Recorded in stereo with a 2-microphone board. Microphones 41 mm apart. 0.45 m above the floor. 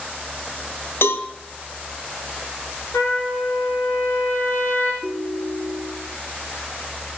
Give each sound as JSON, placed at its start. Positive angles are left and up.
{"t": 1.0, "sound": "a cowbell", "side_deg": 70, "distance_m": 2.0}
{"t": 2.9, "sound": "a trumpet", "side_deg": 75, "distance_m": 8.0}
{"t": 5.0, "sound": "a ringtone", "side_deg": 80, "distance_m": 3.0}